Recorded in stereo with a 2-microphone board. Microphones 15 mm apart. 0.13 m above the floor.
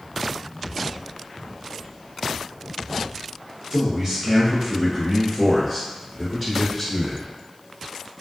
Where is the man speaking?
45° right (ahead or behind), 1.6 m; by 7.3 s centre (ahead or behind), 1.6 m.